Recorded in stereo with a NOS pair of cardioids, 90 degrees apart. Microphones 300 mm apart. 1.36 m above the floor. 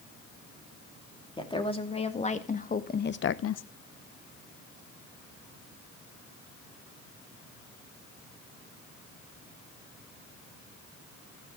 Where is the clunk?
I don't hear a clunk.